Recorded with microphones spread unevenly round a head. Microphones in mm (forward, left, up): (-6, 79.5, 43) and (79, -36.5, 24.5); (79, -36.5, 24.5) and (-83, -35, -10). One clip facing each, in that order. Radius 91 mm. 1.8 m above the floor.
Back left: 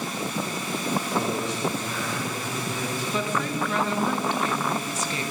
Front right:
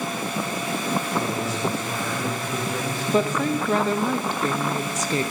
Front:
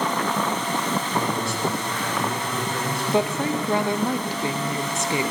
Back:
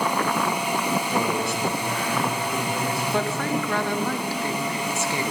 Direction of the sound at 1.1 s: 155° right.